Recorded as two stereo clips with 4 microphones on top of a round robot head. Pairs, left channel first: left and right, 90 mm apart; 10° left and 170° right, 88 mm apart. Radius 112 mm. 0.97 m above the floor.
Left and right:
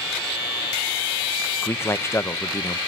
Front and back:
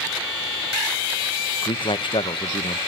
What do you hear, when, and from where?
1.6 s a man speaking: 30° left, 0.8 m